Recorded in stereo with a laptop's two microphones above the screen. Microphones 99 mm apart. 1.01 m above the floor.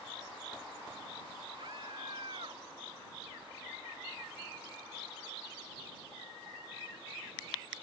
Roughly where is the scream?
Right.